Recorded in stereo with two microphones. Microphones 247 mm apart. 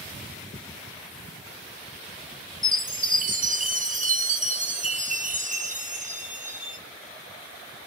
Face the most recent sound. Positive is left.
turn(degrees=-30)  # may be behind; listen again after turning